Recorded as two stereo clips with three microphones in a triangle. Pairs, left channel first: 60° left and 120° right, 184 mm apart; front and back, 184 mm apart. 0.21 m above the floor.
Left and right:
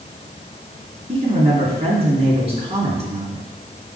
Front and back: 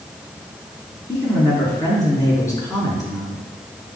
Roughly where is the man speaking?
Right.